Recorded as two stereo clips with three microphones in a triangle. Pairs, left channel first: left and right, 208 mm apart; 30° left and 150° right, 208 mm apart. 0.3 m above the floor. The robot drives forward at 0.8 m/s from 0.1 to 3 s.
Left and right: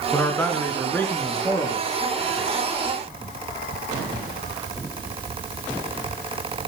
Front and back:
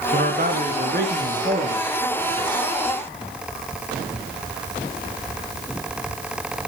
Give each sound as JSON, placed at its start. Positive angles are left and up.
{"t": 0.1, "sound": "a man speaking", "azimuth_deg": 170, "distance_m": 3.0}